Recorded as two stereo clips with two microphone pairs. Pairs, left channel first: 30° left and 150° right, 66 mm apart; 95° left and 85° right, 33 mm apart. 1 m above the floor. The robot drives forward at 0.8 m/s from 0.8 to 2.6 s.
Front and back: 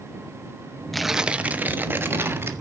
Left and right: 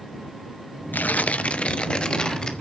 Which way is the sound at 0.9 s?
115° left.